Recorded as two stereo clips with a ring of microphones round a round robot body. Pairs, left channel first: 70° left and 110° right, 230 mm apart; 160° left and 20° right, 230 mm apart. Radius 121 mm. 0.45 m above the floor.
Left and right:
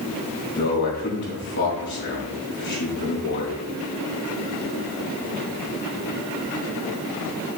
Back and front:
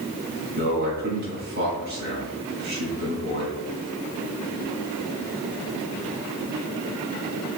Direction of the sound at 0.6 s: 25° left.